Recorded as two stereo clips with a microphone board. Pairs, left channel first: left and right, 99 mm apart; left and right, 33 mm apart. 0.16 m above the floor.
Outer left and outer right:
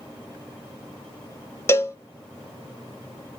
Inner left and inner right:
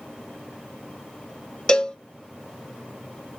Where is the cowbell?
25° left (ahead or behind), 0.5 m.